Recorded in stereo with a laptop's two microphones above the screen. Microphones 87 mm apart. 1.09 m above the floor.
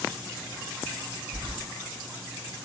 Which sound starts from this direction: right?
Keys jangling, at 1.3 s.